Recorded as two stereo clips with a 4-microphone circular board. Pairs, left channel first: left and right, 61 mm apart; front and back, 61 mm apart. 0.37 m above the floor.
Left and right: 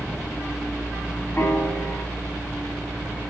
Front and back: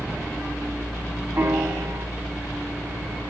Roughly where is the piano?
Behind left.